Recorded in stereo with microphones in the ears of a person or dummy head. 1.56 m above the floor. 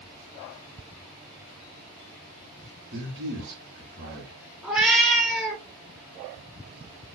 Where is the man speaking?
45° right (ahead or behind), 2.5 m.